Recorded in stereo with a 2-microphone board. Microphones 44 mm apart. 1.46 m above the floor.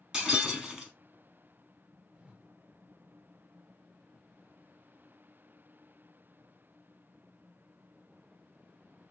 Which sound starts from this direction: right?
A whoosh, at 2.1 s.